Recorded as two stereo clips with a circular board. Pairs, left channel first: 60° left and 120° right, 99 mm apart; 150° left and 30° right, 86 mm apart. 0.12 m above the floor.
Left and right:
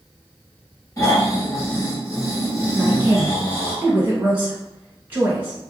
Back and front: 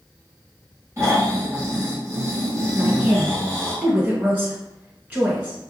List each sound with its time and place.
1.0 s snoring: 10° left, 1.3 m
2.8 s a woman speaking: 70° right, 1.4 m